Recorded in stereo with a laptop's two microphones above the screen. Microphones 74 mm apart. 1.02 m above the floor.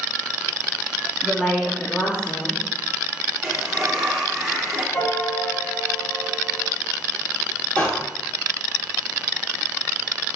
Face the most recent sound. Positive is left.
turn(degrees=20)  # may be behind; listen again after turning